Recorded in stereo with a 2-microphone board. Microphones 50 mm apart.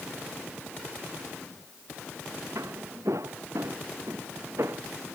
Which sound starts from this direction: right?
Footsteps, at 2.5 s.